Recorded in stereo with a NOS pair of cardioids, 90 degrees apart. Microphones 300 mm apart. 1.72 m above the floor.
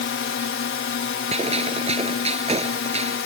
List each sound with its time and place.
0.0 s a drone: 45° left
1.3 s a gunshot: 20° right